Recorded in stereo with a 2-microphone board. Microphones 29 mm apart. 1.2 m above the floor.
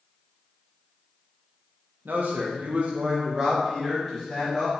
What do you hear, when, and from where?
2.0 s a man speaking: 80° right, 1.0 m; by 4.7 s centre (ahead or behind), 2 m